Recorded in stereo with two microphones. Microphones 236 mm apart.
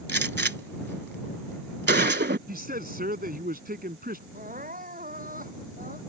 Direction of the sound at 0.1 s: 45° right (ahead or behind).